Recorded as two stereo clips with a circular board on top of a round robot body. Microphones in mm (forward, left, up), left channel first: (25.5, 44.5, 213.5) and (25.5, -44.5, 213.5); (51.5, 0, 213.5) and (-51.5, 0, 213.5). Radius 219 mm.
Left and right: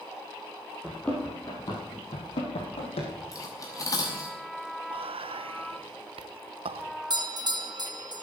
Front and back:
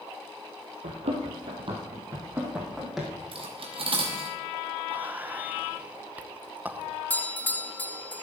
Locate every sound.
0.8 s running footsteps: straight behind, 2 m; by 3.1 s 85° left, 3 m
3.3 s cutlery clinking: 145° left, 0.9 m
4.9 s whispering: 105° right, 0.7 m
7.1 s a doorbell: 70° right, 1.5 m